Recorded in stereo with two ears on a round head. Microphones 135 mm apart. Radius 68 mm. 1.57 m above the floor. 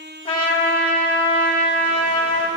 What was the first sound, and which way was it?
A trumpet, 35° left (ahead or behind).